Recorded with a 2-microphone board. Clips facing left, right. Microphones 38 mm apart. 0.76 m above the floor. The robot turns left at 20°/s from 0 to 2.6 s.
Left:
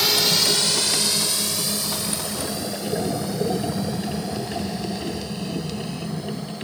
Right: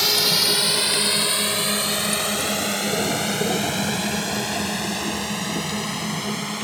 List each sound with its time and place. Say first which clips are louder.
0.0 s a drone: even; centre (ahead or behind); by 6.6 s 75° right (ahead or behind)